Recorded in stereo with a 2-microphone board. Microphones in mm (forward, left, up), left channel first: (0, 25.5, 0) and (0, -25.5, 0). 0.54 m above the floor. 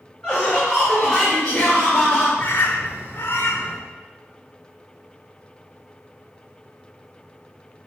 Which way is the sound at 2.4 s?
55° left (ahead or behind).